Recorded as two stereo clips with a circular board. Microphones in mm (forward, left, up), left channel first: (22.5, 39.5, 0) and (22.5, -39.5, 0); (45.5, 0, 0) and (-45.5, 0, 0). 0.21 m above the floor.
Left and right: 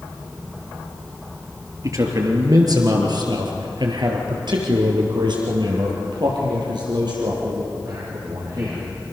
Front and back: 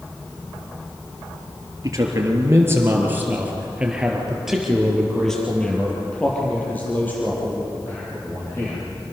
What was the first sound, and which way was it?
A man speaking, 130° right.